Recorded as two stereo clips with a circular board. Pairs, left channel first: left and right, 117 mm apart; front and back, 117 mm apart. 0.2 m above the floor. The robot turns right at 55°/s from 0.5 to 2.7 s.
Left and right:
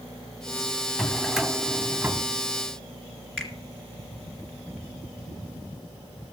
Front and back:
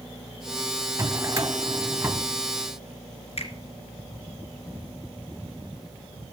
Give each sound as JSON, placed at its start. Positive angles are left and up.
{"t": 1.0, "sound": "a drawer", "azimuth_deg": 170, "distance_m": 0.6}
{"t": 3.4, "sound": "a finger snap", "azimuth_deg": 5, "distance_m": 2.5}